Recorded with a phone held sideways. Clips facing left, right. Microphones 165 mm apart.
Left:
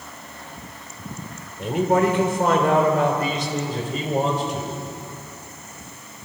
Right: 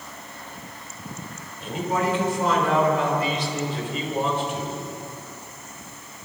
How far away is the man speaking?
About 4 m.